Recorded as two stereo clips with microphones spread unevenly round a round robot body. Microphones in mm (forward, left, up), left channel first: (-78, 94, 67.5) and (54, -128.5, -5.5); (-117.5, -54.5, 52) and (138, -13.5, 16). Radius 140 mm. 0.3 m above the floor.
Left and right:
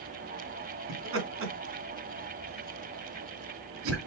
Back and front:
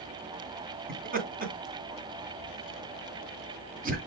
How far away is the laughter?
About 2.5 m.